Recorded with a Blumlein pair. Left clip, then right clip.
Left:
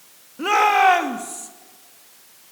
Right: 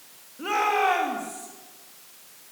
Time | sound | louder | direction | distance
0.4 | a shout | left 7 dB | 65° left | 3 m